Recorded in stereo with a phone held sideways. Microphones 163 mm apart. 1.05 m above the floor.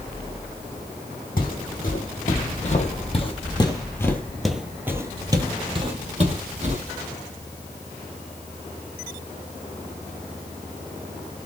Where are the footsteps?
65° left (ahead or behind), 2 m; by 6.8 s 50° right (ahead or behind), 1.9 m.